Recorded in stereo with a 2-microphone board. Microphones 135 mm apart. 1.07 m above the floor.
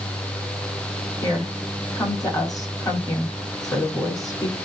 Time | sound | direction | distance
1.2 | a woman speaking | 25° left (ahead or behind) | 7.5 m